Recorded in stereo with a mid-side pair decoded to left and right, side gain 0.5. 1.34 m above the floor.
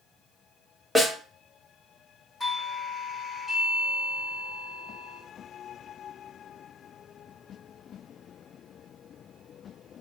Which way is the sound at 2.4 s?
10° left.